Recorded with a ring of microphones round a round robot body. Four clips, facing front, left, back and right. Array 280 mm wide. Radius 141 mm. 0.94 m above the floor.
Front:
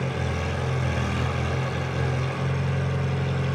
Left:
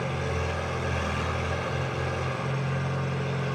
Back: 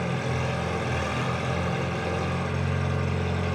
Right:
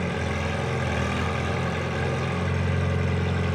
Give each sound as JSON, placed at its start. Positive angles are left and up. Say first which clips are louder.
{"t": 0.0, "sound": "an engine running", "louder": "right 2 dB, even", "azimuth_deg": -115, "distance_m": 6.5}